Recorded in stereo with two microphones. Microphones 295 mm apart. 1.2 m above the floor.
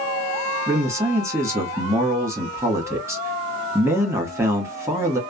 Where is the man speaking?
10° right (ahead or behind), 1.4 m.